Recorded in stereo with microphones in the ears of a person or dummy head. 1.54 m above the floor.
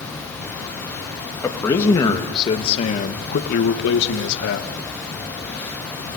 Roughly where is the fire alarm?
I don't hear a fire alarm.